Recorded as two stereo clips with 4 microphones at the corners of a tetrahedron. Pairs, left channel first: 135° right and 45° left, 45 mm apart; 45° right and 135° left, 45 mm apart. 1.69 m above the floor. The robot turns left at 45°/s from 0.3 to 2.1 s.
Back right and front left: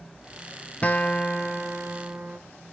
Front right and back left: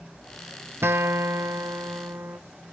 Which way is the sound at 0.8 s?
165° left.